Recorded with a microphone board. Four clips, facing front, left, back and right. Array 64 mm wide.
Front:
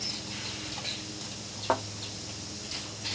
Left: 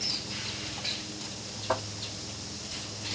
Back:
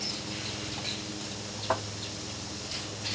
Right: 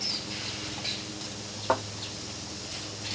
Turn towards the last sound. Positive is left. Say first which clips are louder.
# right 3 dB, front 2 dB
turn(degrees=-40)